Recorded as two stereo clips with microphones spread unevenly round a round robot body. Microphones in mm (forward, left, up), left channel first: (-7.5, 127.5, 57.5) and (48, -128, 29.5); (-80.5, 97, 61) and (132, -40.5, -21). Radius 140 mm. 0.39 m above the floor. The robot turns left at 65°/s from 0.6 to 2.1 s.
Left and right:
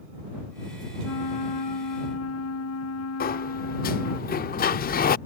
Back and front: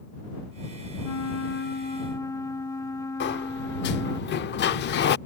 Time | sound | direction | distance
1.0 | a flute | 140° left | ?
3.2 | a sliding door | 110° left | ?